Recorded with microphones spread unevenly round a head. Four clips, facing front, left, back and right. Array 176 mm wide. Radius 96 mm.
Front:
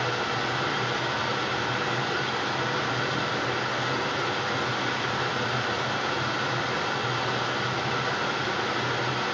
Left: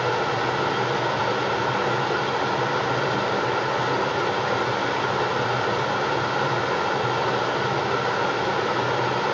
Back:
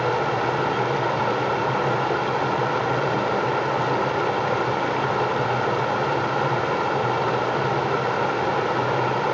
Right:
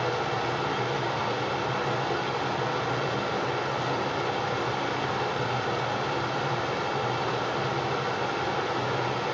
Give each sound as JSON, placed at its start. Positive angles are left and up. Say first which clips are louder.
{"t": 0.0, "sound": "running water", "louder": "left 5 dB, back 7 dB", "azimuth_deg": 155, "distance_m": 0.9}